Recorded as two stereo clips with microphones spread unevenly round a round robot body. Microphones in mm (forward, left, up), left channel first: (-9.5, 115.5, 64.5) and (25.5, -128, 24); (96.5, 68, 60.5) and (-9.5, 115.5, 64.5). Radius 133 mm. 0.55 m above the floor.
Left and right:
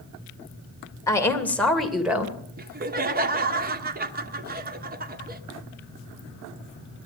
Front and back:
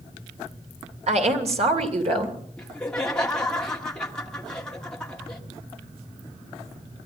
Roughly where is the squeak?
I don't hear a squeak.